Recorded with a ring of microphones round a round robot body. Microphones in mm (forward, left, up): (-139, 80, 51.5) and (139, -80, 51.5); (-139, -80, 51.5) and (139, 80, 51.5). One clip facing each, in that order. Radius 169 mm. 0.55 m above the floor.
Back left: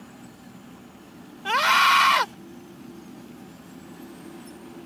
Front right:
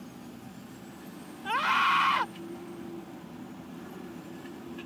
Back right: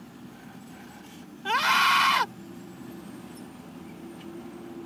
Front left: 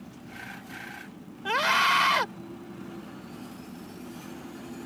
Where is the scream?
145° left.